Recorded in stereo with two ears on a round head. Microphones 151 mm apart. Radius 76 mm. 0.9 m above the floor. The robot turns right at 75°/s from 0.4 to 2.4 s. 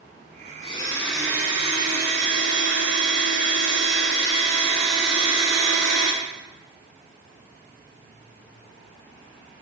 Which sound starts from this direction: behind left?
A blender, at 0.6 s.